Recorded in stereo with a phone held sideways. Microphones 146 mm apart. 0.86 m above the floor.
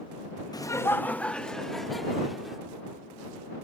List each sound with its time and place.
0.5 s laughter: 30° left (ahead or behind); by 2.6 s centre (ahead or behind)